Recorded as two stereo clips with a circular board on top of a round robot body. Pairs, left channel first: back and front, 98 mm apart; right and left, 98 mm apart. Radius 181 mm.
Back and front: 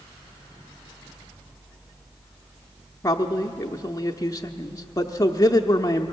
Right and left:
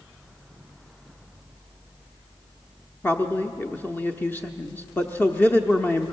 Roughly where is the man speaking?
Behind right.